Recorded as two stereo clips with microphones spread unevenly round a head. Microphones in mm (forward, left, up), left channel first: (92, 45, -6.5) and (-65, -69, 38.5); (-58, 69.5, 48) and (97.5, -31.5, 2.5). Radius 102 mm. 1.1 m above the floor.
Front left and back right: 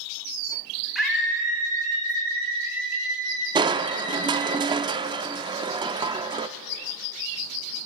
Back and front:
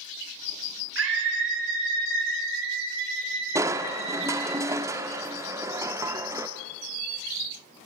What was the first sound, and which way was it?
A scream, 55° right.